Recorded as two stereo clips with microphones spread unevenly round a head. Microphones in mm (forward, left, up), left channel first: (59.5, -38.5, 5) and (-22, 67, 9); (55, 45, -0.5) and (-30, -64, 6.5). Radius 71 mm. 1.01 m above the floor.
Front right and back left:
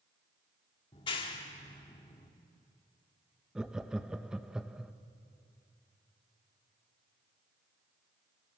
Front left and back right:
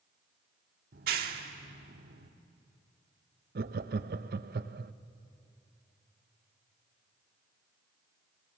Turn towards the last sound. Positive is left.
turn(degrees=-145)